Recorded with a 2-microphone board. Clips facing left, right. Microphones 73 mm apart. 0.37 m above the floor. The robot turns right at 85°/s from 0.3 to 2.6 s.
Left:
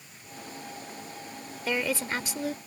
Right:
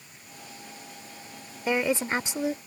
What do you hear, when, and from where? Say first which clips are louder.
1.7 s a woman speaking: right 4 dB; 20° right (ahead or behind)